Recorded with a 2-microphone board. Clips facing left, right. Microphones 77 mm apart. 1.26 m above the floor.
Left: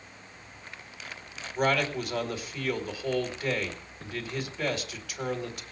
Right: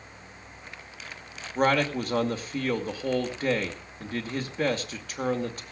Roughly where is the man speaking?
Right.